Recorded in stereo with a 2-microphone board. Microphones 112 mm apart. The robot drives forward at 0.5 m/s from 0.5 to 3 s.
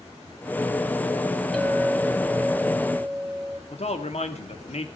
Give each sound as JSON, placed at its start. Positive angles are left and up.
{"t": 1.5, "sound": "a clink", "side_deg": 0, "distance_m": 4.0}
{"t": 3.7, "sound": "a man speaking", "side_deg": 65, "distance_m": 2.0}